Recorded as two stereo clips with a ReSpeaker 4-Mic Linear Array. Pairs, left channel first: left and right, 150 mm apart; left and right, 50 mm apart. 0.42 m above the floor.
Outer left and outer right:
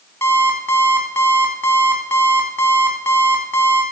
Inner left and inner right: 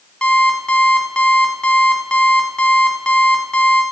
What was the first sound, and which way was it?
An alarm clock, 15° left (ahead or behind).